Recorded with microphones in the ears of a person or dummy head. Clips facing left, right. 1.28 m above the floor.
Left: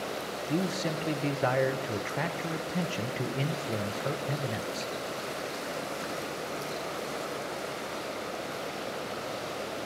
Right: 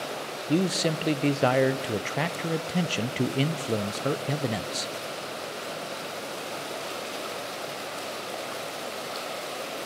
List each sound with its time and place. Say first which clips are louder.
0.5 s a man speaking: right 6 dB; 45° right (ahead or behind), 0.5 m